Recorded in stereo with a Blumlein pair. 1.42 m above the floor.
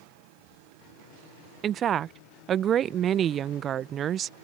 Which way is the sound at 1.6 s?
25° right.